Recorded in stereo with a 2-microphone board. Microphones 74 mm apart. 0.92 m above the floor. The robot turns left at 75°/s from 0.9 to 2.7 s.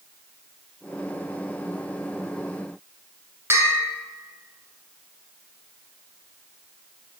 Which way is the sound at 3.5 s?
40° right (ahead or behind).